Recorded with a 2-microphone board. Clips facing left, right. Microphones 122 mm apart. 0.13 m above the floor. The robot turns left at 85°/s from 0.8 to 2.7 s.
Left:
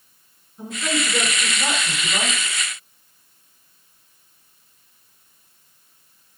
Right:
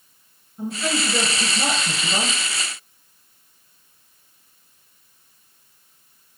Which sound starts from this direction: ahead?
A woman speaking, at 0.6 s.